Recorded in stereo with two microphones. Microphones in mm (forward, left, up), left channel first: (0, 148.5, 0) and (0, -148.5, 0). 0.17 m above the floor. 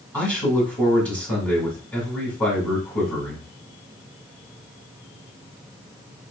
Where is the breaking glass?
No breaking glass in this recording.